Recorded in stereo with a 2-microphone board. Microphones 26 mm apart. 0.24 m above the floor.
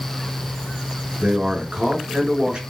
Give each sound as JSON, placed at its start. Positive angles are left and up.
{"t": 1.2, "sound": "a man speaking", "side_deg": -40, "distance_m": 3.5}